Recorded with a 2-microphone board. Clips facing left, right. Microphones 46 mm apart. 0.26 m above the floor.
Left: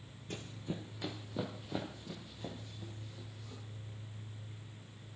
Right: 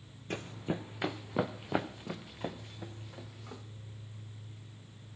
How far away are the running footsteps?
About 0.9 m.